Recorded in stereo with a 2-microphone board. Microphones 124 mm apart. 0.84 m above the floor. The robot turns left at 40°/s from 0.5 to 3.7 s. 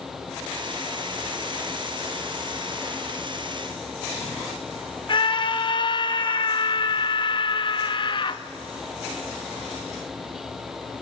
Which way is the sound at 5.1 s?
40° left (ahead or behind).